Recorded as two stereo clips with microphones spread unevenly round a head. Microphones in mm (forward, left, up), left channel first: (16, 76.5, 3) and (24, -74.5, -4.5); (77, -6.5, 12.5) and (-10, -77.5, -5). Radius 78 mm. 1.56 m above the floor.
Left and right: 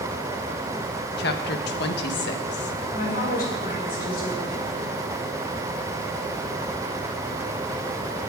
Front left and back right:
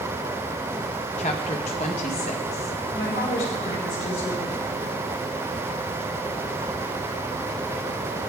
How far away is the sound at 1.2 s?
About 1.6 m.